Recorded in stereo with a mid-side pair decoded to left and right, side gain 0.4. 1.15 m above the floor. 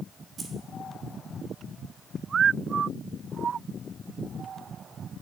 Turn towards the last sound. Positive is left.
turn(degrees=-45)